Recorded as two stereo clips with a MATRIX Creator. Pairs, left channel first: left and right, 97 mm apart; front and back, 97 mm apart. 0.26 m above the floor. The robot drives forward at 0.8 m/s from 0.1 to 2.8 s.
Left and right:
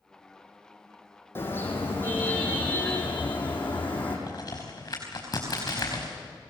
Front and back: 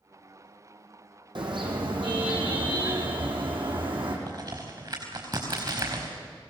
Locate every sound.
1.4 s a car horn: 155° left, 4 m; by 4.2 s 160° left, 5.5 m
4.3 s a crack: 140° left, 4.5 m